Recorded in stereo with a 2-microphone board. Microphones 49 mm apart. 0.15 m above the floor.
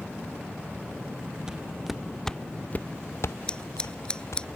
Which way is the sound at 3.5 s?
20° left (ahead or behind).